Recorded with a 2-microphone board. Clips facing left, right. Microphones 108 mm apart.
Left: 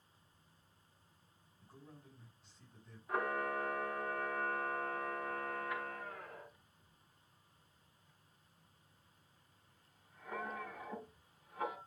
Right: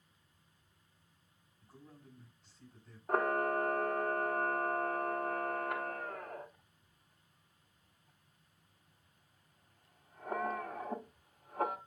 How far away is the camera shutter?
About 1.1 m.